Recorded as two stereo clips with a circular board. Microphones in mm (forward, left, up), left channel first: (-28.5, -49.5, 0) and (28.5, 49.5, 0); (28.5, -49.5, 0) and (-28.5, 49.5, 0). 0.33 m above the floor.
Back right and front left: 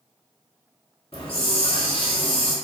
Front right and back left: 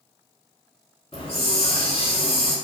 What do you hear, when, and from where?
1.1 s a hiss: 90° right, 1.3 m